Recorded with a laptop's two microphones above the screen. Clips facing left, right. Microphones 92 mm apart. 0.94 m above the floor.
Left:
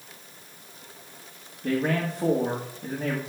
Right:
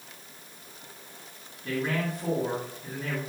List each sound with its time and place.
1.6 s a man speaking: 80° left, 1.5 m